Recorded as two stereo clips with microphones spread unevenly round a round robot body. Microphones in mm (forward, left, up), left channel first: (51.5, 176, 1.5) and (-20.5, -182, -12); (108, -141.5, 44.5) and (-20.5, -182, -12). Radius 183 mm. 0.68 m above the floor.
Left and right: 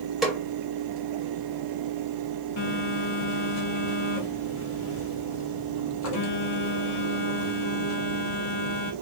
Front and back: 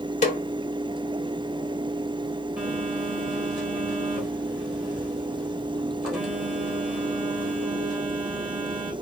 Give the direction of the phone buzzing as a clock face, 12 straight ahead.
8 o'clock.